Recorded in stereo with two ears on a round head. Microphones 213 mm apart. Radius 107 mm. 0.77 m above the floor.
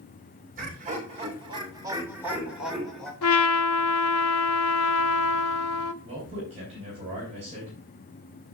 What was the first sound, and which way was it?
Laughter, 35° right (ahead or behind).